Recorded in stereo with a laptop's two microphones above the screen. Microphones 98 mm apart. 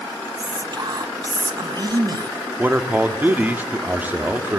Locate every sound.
0.4 s whispering: 45° right (ahead or behind), 1.6 m
2.6 s a man speaking: 20° right (ahead or behind), 1.9 m